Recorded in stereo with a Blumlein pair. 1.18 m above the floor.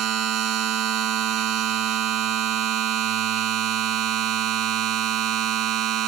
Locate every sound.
0.0 s a machine running: 35° right, 1.0 m